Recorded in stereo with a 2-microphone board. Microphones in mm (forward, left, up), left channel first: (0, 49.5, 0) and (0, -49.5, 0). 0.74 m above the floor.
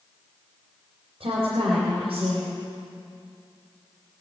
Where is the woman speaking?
75° right (ahead or behind), 3.5 m.